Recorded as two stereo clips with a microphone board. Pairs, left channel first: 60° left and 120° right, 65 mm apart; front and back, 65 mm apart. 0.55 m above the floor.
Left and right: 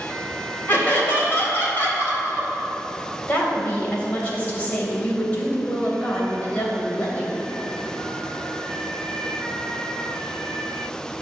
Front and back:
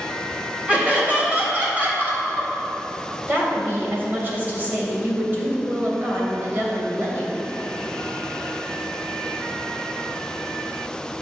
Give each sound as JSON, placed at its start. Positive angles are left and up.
{"t": 0.7, "sound": "laughter", "azimuth_deg": 115, "distance_m": 3.5}
{"t": 3.3, "sound": "a woman speaking", "azimuth_deg": 125, "distance_m": 3.0}